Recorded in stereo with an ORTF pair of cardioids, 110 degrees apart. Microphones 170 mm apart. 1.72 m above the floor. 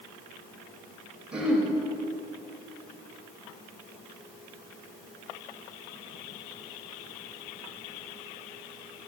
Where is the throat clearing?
5° right, 4 m.